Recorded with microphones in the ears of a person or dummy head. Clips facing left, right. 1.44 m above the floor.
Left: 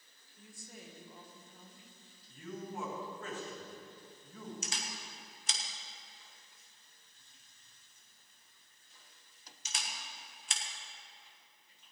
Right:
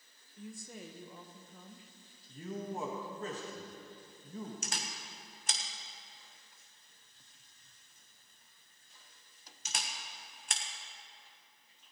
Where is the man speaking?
30° right (ahead or behind), 1.8 m.